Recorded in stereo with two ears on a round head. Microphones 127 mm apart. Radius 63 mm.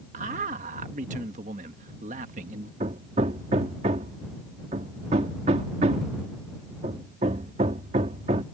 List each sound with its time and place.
0.1 s a man speaking: 55° right (ahead or behind)
2.8 s hammering: 45° right (ahead or behind)